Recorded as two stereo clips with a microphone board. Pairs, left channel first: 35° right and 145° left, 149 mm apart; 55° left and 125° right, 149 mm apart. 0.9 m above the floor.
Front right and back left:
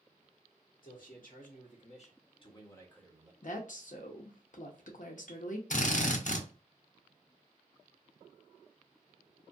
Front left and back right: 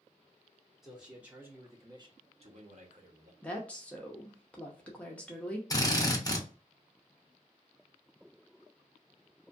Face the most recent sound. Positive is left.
turn(degrees=-10)